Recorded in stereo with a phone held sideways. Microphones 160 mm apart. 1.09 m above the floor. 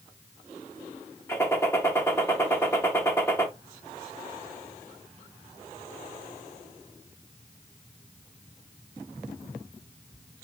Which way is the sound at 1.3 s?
15° left (ahead or behind).